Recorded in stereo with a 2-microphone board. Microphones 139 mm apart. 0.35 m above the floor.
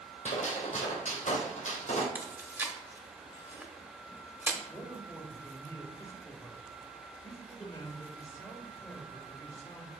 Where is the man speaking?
20° left (ahead or behind), 1.3 m.